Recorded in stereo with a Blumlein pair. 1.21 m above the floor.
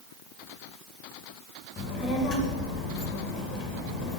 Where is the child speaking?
25° left, 0.5 m.